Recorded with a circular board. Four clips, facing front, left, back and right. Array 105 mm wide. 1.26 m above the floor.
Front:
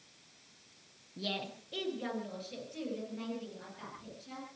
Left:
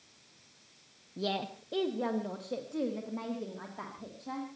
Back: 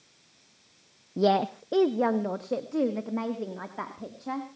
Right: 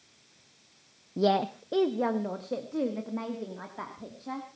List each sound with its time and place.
1.2 s a woman speaking: 145° right, 0.7 m; by 4.5 s 175° right, 3.5 m